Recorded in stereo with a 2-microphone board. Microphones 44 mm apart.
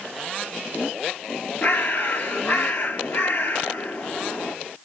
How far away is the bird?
About 0.6 m.